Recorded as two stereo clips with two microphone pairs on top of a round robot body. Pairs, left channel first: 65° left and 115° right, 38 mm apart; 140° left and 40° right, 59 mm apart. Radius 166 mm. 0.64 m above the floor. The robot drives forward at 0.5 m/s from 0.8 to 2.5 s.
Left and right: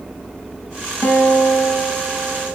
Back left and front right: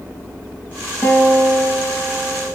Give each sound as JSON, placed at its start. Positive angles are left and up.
{"t": 1.0, "sound": "a guitar", "azimuth_deg": 80, "distance_m": 4.5}